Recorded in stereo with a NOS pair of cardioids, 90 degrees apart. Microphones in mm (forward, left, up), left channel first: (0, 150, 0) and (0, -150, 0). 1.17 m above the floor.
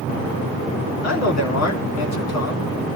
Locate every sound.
1.0 s a man speaking: 60° left, 3 m